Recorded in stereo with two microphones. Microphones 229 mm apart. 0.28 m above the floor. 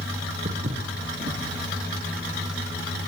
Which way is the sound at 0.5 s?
45° right (ahead or behind).